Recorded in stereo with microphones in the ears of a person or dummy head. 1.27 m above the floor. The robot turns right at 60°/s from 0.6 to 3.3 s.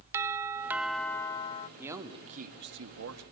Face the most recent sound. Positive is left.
turn(degrees=-90)